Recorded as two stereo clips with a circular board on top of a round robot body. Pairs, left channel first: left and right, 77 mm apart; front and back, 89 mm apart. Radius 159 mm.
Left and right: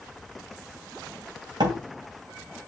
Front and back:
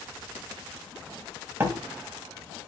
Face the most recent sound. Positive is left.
turn(degrees=-115)